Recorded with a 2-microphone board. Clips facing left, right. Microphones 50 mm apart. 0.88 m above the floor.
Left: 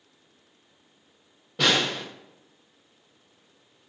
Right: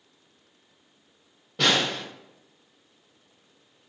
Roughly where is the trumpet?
No trumpet in this recording.